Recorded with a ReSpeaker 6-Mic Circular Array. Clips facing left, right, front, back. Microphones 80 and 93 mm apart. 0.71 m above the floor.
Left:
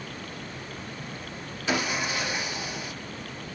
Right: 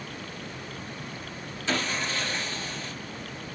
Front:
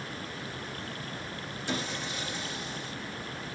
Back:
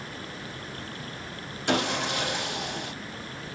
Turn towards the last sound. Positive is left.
turn(degrees=165)